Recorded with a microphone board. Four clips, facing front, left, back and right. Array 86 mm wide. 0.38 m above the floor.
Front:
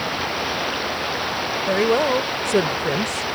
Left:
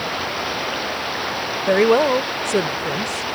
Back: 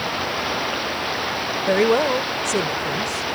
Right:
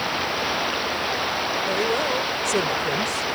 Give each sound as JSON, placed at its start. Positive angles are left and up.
{"t": 1.7, "sound": "a woman speaking", "azimuth_deg": 110}